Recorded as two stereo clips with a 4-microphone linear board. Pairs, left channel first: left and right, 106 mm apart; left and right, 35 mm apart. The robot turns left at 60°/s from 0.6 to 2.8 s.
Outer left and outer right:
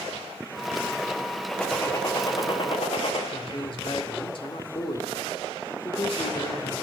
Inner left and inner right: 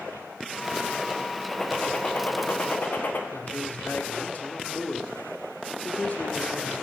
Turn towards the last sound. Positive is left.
turn(degrees=55)  # may be behind; listen again after turning